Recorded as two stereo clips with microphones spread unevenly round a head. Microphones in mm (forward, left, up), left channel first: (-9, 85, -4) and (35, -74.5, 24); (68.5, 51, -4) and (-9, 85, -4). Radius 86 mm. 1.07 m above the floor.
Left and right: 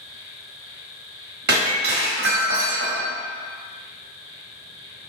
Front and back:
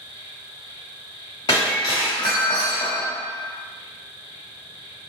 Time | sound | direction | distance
0.0 | an insect | 125° left | 1.4 m
1.5 | breaking glass | 85° right | 0.7 m